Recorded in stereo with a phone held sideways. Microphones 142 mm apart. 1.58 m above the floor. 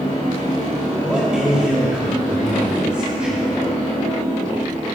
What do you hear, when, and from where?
1.0 s a man speaking: 5° right (ahead or behind), 3 m